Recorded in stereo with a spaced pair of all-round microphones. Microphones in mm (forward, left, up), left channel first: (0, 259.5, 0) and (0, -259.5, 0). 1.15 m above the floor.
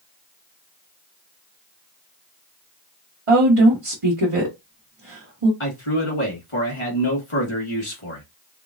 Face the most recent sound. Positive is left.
turn(degrees=70)  # may be behind; listen again after turning